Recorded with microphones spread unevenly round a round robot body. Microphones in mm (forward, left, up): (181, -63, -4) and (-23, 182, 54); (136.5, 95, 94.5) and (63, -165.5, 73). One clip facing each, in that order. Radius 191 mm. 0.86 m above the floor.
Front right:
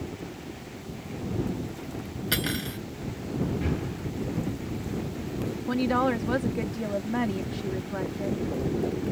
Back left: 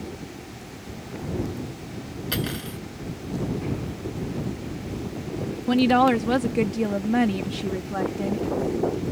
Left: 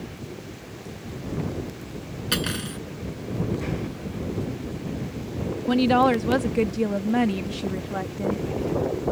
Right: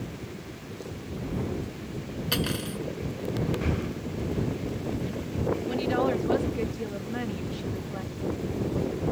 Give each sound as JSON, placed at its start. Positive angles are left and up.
{"t": 2.3, "sound": "cutlery clinking", "azimuth_deg": 10}
{"t": 3.6, "sound": "breathing", "azimuth_deg": -40}
{"t": 5.7, "sound": "a woman speaking", "azimuth_deg": 90}